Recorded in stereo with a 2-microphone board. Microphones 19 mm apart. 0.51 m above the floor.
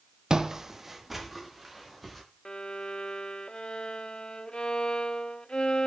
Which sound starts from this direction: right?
Footsteps, at 0.3 s.